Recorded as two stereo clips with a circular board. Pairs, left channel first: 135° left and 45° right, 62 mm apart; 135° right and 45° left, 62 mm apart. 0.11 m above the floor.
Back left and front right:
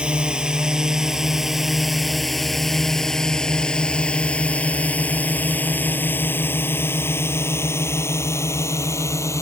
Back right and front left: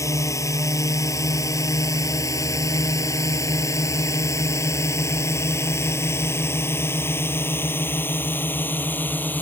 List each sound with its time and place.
0.0 s a drone: 115° right; by 9.4 s 165° left